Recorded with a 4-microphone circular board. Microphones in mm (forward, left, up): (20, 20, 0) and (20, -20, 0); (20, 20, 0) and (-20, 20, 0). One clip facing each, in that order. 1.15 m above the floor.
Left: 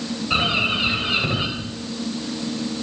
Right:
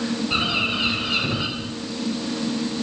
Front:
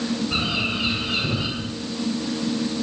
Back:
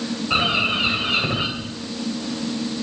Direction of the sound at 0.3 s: 150° left.